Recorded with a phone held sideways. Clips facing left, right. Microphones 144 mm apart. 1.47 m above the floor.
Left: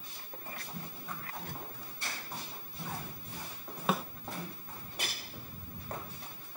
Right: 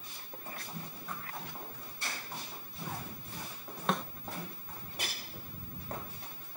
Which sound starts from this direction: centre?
A snare drum, at 3.9 s.